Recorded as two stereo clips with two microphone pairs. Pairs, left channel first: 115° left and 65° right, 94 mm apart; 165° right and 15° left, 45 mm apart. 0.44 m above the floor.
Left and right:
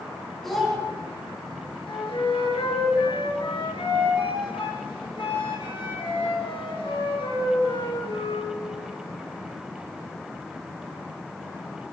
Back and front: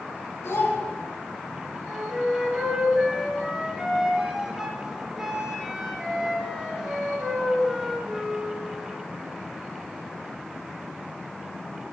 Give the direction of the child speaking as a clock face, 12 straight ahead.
5 o'clock.